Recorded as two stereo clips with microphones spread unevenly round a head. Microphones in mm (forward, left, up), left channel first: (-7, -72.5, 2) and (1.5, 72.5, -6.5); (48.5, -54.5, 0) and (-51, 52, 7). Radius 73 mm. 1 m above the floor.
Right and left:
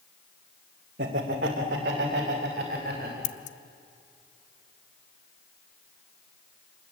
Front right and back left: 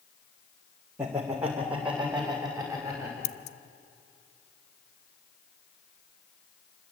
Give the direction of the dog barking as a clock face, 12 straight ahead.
I don't hear a dog barking.